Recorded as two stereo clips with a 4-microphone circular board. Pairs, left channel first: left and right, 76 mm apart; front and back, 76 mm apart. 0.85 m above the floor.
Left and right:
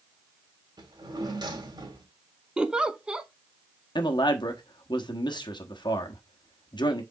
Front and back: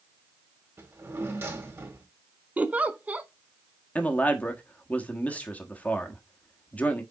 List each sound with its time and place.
0.8 s a drawer: 120° right, 2 m
2.6 s a giggle: 150° right, 0.6 m
4.0 s a man speaking: 70° left, 1.2 m